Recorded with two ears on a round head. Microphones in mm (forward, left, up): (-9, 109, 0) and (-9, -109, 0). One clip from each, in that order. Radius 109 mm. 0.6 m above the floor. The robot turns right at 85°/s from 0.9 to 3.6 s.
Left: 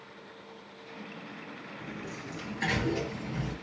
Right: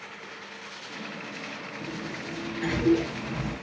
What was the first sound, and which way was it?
A sliding door, 25° left.